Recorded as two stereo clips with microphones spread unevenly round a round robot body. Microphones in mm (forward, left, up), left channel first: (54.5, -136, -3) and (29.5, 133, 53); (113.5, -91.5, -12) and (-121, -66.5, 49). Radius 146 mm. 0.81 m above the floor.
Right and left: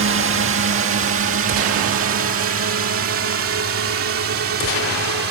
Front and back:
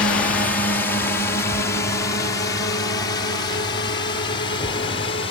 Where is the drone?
60° left; by 5.3 s 55° left.